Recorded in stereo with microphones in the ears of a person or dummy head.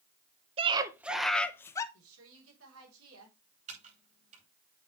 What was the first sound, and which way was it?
A scream, 30° right (ahead or behind).